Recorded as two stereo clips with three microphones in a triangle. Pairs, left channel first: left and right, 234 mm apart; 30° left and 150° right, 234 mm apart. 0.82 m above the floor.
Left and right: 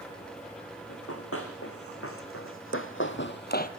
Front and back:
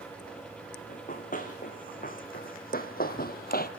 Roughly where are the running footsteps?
Left.